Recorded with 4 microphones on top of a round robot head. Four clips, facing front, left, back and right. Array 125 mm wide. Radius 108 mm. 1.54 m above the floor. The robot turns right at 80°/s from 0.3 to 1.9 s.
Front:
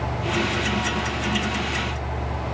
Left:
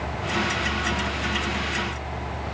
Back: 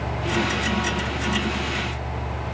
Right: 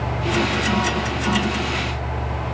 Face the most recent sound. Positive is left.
No sound to turn to.